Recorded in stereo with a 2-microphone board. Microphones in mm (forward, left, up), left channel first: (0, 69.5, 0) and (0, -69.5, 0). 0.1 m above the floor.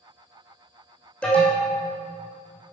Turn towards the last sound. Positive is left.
turn(degrees=10)  # may be behind; listen again after turning